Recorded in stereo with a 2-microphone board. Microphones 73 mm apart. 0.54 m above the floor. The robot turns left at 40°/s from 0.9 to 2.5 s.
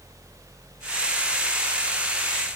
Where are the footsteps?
I don't hear footsteps.